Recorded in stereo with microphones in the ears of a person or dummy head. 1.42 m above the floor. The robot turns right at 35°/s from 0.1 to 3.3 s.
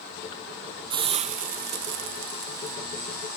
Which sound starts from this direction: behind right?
A hiss, at 0.9 s.